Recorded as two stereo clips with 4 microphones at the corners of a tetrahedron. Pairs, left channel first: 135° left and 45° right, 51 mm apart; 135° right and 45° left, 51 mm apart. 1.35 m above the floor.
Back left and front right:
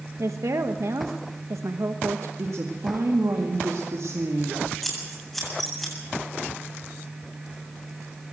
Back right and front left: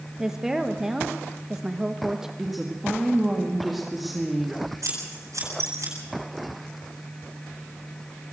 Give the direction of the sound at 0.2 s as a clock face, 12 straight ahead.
1 o'clock.